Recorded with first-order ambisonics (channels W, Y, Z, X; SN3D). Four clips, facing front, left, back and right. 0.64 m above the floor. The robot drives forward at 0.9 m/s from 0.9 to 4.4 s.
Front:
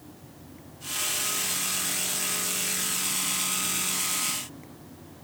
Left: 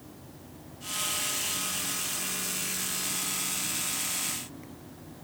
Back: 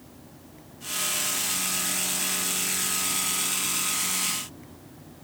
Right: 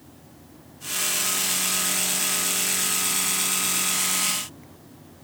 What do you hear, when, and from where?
Only background noise.